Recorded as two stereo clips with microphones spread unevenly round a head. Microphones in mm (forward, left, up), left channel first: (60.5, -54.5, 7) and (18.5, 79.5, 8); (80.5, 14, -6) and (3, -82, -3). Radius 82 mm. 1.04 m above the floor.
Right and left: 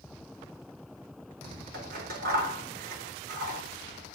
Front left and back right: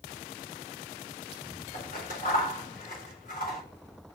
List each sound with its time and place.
1.7 s scissors: 100° left, 4.5 m